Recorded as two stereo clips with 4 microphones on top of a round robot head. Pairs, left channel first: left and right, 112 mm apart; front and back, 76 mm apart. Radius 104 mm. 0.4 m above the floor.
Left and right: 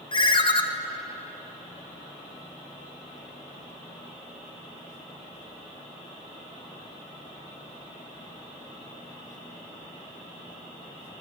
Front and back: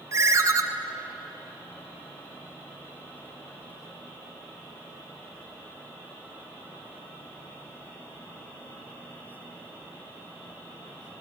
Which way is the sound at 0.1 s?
130° left.